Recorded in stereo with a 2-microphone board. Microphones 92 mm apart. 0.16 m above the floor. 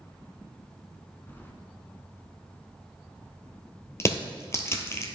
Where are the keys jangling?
20° left (ahead or behind), 0.9 m.